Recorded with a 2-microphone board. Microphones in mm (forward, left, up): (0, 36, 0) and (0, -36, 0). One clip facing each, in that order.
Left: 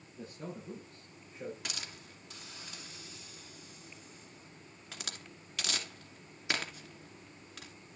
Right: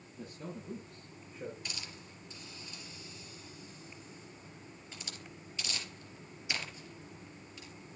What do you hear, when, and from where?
0.1 s a man speaking: 30° left (ahead or behind), 7.5 m; by 1.6 s 25° left (ahead or behind), 6.5 m
1.6 s a hiss: 80° left, 2.5 m